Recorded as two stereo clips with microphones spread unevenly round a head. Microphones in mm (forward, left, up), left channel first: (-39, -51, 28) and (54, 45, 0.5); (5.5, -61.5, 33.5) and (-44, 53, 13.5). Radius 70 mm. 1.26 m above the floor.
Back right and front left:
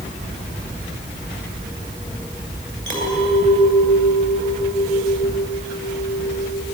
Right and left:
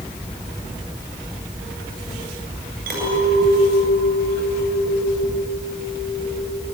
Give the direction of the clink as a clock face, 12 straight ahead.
8 o'clock.